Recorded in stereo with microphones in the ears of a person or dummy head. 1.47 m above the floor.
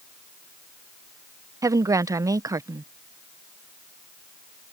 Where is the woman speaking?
20° right (ahead or behind).